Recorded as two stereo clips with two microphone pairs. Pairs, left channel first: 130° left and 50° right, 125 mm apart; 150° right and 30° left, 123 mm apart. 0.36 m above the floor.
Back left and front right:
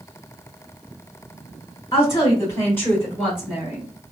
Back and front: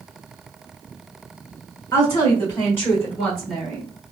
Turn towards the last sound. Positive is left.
turn(degrees=-55)